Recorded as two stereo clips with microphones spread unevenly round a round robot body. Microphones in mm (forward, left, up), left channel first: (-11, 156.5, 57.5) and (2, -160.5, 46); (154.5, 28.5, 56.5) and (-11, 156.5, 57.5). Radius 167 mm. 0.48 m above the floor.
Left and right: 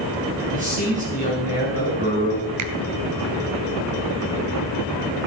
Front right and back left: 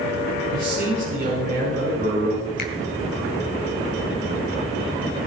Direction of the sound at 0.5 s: 155° right.